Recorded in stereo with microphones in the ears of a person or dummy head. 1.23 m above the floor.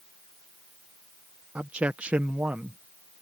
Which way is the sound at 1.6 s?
5° right (ahead or behind).